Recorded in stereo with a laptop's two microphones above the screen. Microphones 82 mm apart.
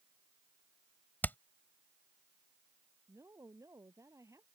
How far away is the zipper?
I don't hear a zipper.